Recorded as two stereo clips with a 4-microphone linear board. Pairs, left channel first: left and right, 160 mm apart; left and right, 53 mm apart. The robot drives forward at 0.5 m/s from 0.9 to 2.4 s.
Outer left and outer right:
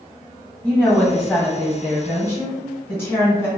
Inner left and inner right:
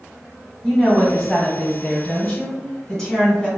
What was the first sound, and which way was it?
A woman speaking, 10° left (ahead or behind).